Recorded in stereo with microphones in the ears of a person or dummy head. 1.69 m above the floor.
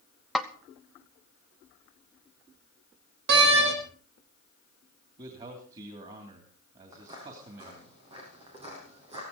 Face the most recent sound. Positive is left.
turn(degrees=-30)  # may be behind; listen again after turning